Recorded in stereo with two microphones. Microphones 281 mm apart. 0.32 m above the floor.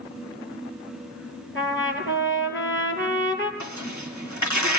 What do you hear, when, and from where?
1.6 s a trumpet: 45° left (ahead or behind), 5 m
3.6 s tearing paper: 80° left, 4 m